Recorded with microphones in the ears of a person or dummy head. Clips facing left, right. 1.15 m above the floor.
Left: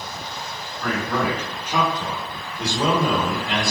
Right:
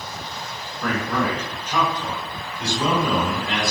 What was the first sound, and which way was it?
A man speaking, 10° right (ahead or behind).